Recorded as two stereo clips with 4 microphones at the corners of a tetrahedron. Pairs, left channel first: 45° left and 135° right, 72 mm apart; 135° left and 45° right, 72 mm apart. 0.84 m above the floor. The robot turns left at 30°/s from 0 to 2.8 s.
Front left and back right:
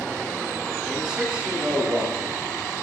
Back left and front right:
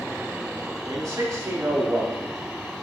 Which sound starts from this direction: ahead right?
A man speaking, at 0.8 s.